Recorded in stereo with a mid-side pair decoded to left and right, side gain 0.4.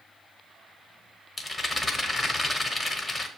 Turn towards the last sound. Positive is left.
turn(degrees=40)